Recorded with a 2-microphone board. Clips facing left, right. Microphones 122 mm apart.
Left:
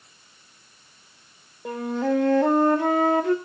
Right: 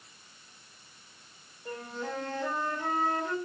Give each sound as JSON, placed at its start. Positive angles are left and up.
{"t": 1.6, "sound": "a flute", "side_deg": 70, "distance_m": 1.3}